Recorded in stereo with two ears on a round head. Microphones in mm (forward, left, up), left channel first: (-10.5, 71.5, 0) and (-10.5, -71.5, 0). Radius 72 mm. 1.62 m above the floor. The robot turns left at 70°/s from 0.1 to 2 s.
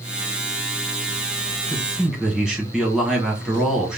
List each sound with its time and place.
1.7 s a man speaking: 20° left (ahead or behind), 1.3 m; by 4.0 s 5° right (ahead or behind), 1.3 m